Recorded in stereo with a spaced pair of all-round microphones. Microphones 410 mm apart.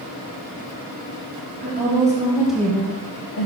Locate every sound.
1.6 s a woman speaking: 25° right (ahead or behind), 1.7 m; by 3.5 s 60° left (ahead or behind), 0.9 m